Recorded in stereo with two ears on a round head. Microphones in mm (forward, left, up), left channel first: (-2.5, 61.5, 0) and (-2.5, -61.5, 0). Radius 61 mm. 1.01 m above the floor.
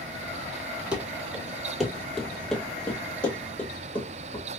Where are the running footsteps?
10° right (ahead or behind), 1.2 m; by 4.5 s 10° left (ahead or behind), 2.5 m.